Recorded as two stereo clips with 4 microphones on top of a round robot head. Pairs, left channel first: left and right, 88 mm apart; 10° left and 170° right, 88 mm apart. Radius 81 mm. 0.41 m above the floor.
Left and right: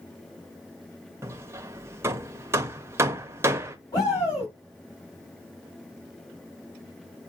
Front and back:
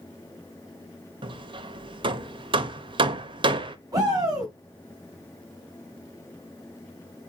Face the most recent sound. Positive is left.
turn(degrees=140)